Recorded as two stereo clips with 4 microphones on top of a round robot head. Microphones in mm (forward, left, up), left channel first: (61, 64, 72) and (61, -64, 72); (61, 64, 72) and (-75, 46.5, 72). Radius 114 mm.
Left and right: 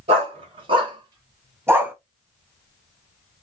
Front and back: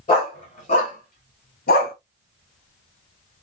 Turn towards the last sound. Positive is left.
turn(degrees=-10)